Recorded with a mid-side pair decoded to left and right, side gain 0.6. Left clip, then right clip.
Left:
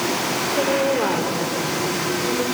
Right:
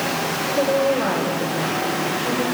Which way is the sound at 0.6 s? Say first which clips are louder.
Right 2 dB; 25° left.